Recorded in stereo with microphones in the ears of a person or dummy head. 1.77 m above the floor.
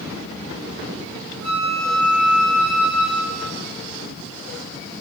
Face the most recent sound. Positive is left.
turn(degrees=-85)